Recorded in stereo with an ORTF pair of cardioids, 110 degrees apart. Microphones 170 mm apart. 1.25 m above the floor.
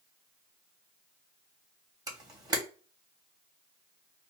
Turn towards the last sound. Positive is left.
turn(degrees=-25)